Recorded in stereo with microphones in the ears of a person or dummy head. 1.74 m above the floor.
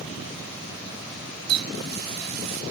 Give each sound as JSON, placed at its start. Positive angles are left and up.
{"t": 1.5, "sound": "a running tap", "side_deg": -55}